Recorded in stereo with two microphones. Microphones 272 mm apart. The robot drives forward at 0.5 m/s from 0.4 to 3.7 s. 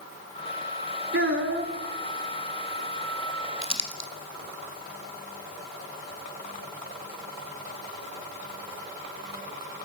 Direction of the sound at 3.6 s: 20° left (ahead or behind).